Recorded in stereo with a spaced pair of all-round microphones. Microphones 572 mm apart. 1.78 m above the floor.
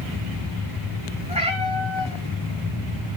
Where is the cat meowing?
10° right (ahead or behind), 5 m.